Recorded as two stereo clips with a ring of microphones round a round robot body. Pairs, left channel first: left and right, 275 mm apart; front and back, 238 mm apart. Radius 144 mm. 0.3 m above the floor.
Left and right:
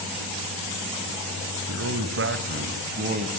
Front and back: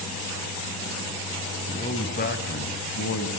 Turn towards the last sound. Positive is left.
turn(degrees=-30)